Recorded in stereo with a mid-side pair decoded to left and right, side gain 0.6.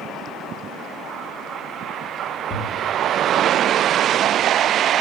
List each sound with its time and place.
2.5 s a thud: 30° left, 1.5 m